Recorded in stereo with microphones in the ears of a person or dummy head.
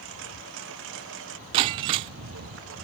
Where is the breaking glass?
20° right (ahead or behind).